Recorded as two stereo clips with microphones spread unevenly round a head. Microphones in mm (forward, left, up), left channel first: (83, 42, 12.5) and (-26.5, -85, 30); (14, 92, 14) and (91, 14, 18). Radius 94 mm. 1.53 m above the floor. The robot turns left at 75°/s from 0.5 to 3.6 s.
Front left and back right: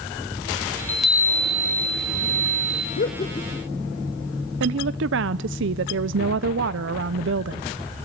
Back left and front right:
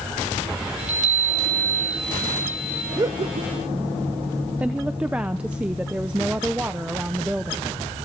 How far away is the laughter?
About 1.1 m.